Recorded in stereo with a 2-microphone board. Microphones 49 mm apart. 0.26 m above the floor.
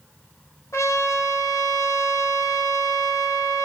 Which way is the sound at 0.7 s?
75° left (ahead or behind).